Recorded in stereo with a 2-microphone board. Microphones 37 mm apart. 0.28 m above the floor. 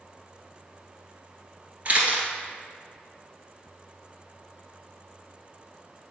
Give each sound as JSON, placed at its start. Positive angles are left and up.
{"t": 1.9, "sound": "a camera shutter", "side_deg": -35, "distance_m": 1.6}